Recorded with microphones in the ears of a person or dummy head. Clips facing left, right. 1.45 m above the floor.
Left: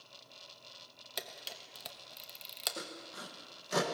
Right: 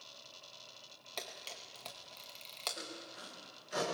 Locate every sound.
1.2 s a camera shutter: 15° left (ahead or behind), 1.0 m
2.8 s sawing: 70° left (ahead or behind), 1.4 m